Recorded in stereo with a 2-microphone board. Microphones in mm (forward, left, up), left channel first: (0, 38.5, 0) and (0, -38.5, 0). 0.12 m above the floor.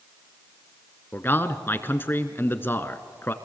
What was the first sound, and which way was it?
A man speaking, 30° left (ahead or behind).